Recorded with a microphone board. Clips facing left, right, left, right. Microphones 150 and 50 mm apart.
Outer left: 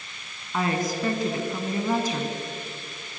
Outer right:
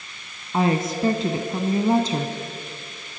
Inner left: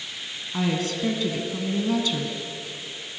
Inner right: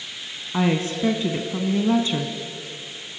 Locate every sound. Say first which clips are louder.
0.5 s a woman speaking: outer right 4 dB, inner right 4 dB; 25° right (ahead or behind), 1.3 m